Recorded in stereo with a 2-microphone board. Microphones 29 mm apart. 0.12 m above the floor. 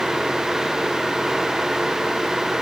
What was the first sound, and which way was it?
Only background noise.